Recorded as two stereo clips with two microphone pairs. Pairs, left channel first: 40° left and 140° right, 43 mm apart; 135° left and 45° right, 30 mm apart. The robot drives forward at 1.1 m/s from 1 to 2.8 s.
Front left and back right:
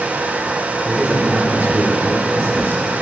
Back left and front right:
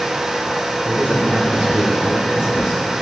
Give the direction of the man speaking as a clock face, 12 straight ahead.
3 o'clock.